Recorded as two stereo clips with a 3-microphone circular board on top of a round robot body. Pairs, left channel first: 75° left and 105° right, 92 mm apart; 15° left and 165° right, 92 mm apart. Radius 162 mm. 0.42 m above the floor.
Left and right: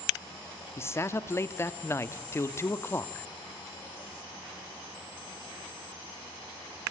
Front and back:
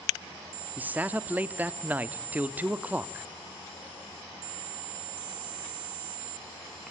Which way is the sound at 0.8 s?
125° left.